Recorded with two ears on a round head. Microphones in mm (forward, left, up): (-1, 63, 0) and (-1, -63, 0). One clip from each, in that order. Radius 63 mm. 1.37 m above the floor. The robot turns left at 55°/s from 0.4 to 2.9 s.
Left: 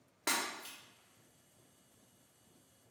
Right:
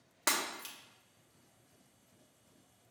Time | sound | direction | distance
0.3 | breaking glass | 35° right (ahead or behind) | 1.0 m